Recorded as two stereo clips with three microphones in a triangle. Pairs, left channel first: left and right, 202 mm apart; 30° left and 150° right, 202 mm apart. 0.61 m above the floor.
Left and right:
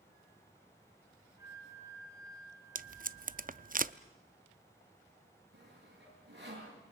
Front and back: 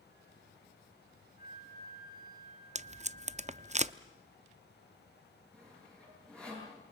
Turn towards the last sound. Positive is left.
turn(degrees=-55)